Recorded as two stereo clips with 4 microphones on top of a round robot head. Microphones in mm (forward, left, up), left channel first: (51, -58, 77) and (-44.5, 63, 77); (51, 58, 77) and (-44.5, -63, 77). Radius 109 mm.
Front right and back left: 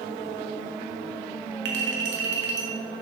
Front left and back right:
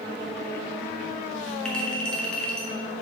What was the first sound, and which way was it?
A clink, 135° left.